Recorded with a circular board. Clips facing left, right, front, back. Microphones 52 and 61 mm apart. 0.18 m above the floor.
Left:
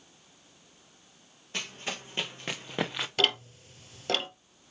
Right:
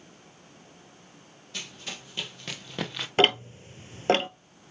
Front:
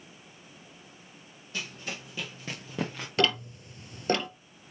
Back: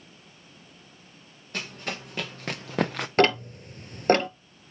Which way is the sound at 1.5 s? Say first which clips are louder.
Left 3 dB, back 4 dB; 145° left.